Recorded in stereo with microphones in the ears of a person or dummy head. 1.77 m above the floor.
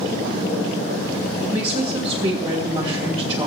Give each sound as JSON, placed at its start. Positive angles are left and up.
{"t": 1.5, "sound": "a woman speaking", "side_deg": -35, "distance_m": 2.5}